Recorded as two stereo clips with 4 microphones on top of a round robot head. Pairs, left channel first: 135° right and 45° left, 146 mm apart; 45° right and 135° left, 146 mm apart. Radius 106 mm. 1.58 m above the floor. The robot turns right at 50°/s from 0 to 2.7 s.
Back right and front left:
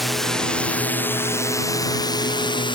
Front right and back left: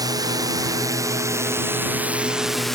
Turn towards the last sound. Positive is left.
turn(degrees=-135)